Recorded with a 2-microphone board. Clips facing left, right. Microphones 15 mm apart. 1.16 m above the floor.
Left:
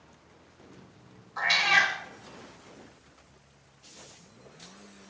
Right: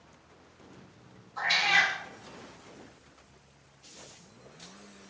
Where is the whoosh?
I don't hear a whoosh.